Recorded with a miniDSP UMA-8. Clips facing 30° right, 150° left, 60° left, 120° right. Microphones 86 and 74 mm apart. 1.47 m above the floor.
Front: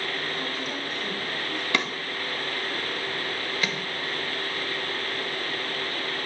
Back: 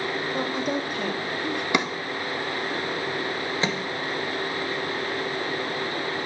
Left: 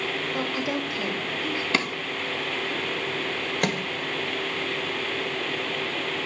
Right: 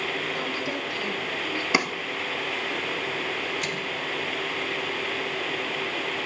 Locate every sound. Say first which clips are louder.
0.3 s a woman speaking: back 6 dB, left 2 dB; 125° left, 3 m; by 1.6 s 130° left, 4 m
1.7 s a drawer: back 3 dB, right 3 dB; 170° right, 1.0 m
3.6 s a microwave: back 4 dB, left 5 dB; 90° left, 1.5 m